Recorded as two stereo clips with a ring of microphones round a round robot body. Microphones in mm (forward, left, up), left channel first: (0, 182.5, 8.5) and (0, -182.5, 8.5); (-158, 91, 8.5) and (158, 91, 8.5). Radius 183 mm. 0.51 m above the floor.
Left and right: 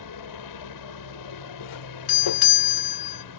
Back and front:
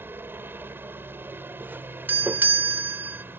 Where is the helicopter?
80° left.